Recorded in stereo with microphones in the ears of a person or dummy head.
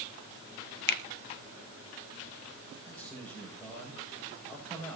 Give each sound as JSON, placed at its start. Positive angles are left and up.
{"t": 0.9, "sound": "a finger snap", "side_deg": 60, "distance_m": 1.2}
{"t": 2.9, "sound": "a man speaking", "side_deg": 0, "distance_m": 7.0}